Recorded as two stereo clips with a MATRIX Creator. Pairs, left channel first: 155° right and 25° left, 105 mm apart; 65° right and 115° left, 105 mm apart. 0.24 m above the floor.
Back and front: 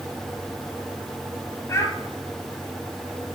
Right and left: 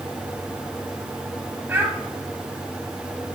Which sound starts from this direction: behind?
A child speaking, at 1.7 s.